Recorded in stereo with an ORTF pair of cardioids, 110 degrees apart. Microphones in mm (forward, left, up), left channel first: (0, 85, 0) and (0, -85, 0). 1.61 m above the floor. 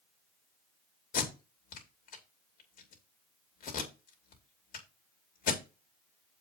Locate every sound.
1.1 s tape being pulled: 55° left, 3 m